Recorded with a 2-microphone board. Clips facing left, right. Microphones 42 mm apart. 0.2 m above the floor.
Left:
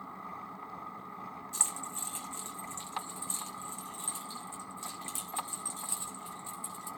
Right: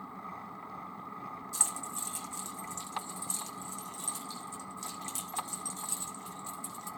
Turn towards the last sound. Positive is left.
turn(degrees=15)  # may be behind; listen again after turning